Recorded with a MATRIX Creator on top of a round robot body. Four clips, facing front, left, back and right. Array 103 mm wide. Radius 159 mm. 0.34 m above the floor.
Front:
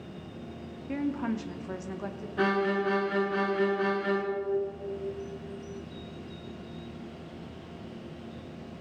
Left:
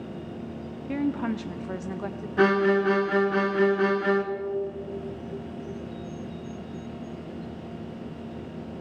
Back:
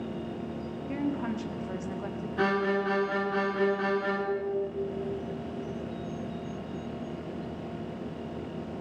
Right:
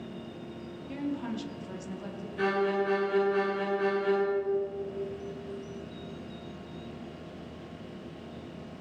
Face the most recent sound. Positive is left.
turn(degrees=95)